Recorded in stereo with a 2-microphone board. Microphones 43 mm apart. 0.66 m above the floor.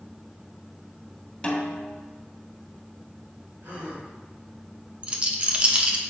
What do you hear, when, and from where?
1.4 s a snare drum: 20° left (ahead or behind), 1.2 m
3.6 s a gasp: 75° right (ahead or behind), 2.5 m
5.0 s a rattle: 30° right (ahead or behind), 0.7 m